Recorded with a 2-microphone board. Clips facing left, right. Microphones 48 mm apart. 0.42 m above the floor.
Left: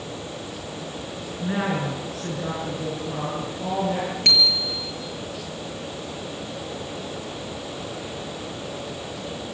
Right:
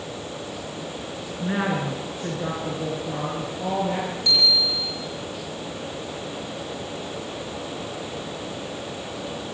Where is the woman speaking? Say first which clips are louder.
Even; 15° right (ahead or behind), 5 m; by 4.2 s 20° right (ahead or behind), 8.5 m.